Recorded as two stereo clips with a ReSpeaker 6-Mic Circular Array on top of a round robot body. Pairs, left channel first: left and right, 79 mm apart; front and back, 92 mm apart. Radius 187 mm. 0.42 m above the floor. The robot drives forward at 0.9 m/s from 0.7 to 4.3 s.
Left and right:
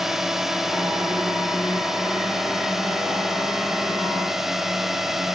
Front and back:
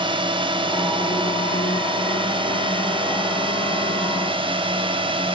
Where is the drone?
175° right.